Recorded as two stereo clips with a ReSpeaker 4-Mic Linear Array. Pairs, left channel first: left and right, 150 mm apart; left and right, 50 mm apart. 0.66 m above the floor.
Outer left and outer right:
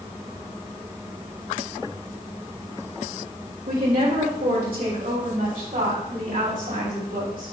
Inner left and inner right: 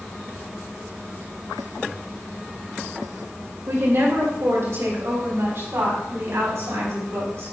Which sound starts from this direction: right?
A woman speaking, at 3.7 s.